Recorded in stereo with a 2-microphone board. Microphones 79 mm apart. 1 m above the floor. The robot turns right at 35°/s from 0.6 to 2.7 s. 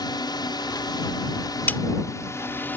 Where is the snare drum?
25° left (ahead or behind); by 1.8 s 20° left (ahead or behind).